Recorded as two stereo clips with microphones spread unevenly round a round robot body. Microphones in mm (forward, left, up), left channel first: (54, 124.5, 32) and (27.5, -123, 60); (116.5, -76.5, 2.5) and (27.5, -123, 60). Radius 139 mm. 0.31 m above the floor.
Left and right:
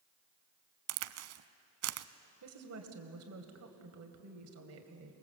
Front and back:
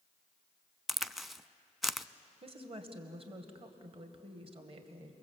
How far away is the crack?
About 0.7 m.